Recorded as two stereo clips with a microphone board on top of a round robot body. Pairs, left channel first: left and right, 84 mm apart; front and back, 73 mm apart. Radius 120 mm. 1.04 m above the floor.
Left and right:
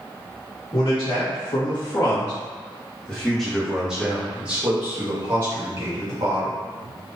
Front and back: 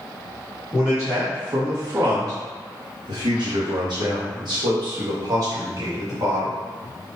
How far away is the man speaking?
About 1.5 m.